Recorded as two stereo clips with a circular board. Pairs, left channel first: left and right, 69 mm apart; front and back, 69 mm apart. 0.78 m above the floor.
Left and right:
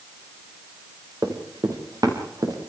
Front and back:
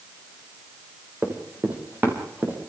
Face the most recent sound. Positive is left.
turn(degrees=-120)